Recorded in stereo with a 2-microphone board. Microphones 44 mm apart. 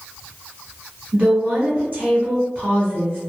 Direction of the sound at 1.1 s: 30° right (ahead or behind).